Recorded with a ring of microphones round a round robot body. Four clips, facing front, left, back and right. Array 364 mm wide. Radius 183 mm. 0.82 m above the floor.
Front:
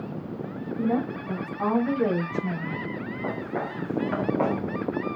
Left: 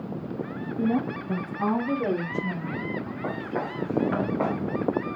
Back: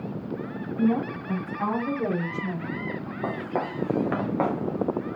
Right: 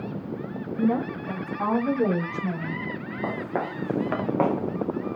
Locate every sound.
0.8 s a woman speaking: 75° right, 7 m; by 2.8 s 80° right, 5 m
3.2 s footsteps: 135° right, 3 m; by 5.2 s 95° right, 3.5 m